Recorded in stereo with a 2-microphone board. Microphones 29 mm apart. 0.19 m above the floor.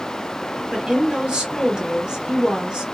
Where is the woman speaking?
25° right (ahead or behind), 2.0 m.